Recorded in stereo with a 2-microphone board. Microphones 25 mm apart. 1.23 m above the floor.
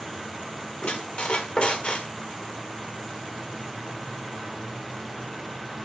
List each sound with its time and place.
0.8 s a squeak: 50° left (ahead or behind), 1.2 m